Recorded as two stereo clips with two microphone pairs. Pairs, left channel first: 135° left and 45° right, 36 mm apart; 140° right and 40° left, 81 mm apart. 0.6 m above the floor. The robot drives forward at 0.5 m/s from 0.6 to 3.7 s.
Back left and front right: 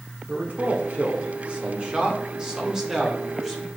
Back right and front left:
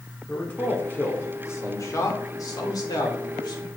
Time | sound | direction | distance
0.3 | a man speaking | 75° right | 1.8 m